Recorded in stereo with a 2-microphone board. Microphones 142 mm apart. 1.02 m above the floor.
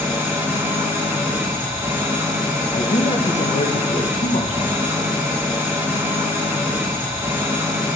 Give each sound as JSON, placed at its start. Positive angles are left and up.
{"t": 0.0, "sound": "an engine running", "side_deg": -15, "distance_m": 1.2}
{"t": 2.7, "sound": "a man speaking", "side_deg": 55, "distance_m": 0.9}